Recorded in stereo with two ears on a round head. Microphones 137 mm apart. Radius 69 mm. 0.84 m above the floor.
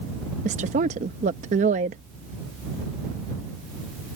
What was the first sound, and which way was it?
A woman speaking, 50° right (ahead or behind).